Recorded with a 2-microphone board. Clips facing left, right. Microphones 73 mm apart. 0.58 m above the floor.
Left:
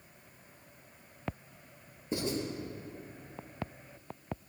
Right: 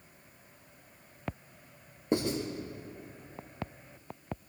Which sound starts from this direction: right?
Writing, at 2.1 s.